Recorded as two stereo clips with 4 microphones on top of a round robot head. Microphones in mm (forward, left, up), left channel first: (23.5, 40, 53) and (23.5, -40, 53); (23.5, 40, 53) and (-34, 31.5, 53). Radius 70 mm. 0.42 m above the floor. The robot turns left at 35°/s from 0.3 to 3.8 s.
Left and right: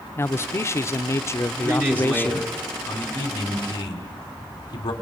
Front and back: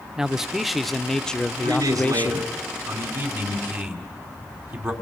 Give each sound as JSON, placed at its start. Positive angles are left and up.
{"t": 0.2, "sound": "a man speaking", "azimuth_deg": 115, "distance_m": 0.8}
{"t": 1.6, "sound": "a man speaking", "azimuth_deg": -150, "distance_m": 3.5}